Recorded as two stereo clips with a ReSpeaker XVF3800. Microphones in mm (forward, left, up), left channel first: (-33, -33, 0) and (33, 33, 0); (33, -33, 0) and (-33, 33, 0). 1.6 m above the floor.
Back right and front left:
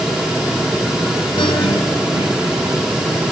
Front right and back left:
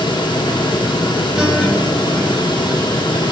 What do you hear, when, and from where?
1.4 s a guitar: 145° right, 7 m